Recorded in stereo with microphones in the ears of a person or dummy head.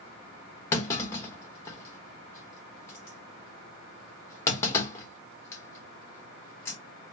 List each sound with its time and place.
0.7 s a clunk: 20° left (ahead or behind), 1.3 m